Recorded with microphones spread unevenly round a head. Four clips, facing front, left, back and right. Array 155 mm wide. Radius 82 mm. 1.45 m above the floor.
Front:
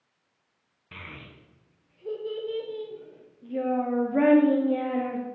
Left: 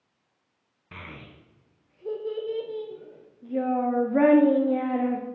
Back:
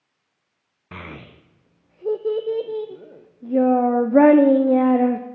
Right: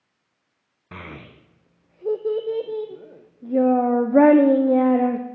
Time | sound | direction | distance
0.9 | a child speaking | 155° right | 0.5 m